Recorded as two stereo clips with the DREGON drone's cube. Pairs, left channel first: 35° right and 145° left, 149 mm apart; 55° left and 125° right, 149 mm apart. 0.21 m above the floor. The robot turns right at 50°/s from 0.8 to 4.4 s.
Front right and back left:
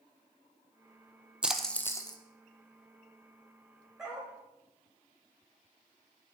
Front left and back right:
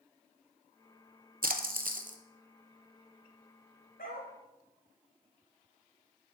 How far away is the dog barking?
About 3 m.